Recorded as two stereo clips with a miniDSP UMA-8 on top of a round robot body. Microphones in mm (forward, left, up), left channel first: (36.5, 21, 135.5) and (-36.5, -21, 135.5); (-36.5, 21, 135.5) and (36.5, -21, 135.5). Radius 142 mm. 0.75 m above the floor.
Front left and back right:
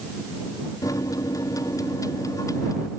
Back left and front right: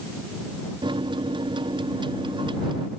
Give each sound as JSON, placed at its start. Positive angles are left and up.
{"t": 0.8, "sound": "a microwave", "azimuth_deg": -15}